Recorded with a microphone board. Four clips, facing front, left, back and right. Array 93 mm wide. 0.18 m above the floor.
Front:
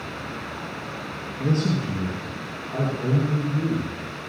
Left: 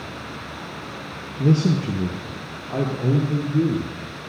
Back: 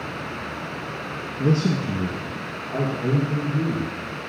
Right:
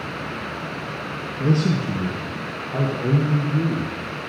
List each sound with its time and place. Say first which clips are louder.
1.4 s a man speaking: left 2 dB, back 2 dB; 120° left, 3.5 m; by 3.9 s 105° left, 5.5 m